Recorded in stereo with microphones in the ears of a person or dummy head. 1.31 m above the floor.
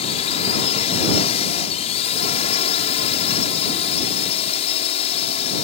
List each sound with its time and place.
0.0 s a drone: 35° left (ahead or behind)